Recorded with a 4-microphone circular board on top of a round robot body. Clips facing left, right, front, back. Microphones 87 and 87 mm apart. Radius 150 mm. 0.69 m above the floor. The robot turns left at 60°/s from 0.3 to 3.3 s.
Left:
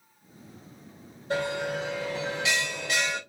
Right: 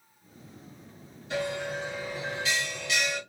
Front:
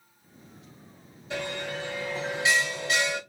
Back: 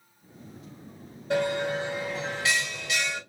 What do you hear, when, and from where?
1.3 s a bell: 140° left, 2 m; by 3.2 s 25° left, 2 m